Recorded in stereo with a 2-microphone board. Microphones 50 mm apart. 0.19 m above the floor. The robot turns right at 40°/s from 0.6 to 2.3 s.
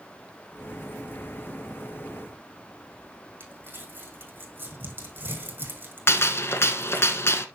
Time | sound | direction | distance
3.4 | crumpling | 40° right (ahead or behind) | 3 m
6.1 | a gunshot | 50° left (ahead or behind) | 0.9 m